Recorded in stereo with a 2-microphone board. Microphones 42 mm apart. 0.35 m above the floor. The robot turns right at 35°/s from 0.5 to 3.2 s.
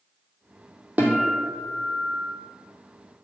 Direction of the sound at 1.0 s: 135° right.